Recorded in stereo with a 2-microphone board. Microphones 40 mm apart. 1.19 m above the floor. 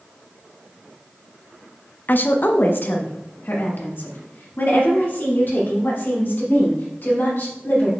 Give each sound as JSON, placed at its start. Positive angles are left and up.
{"t": 2.1, "sound": "a woman speaking", "side_deg": 50, "distance_m": 0.6}